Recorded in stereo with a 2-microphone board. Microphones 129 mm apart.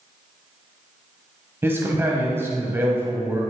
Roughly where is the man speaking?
Centre.